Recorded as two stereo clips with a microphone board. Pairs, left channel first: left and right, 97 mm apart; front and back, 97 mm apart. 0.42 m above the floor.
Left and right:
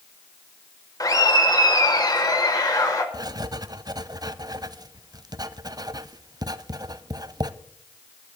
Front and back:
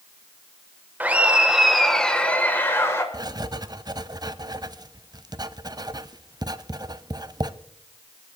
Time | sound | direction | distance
1.0 | laughter | 115° left | 1.5 m
3.1 | writing | 135° right | 0.5 m